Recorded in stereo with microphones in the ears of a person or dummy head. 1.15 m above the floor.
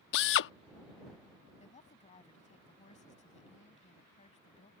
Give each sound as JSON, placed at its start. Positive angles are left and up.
{"t": 0.1, "sound": "a drill", "side_deg": 65}
{"t": 1.6, "sound": "a woman speaking", "side_deg": 30}